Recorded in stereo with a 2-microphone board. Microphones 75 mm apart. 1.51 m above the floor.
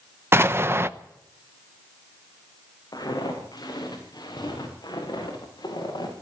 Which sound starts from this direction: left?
Footsteps, at 2.9 s.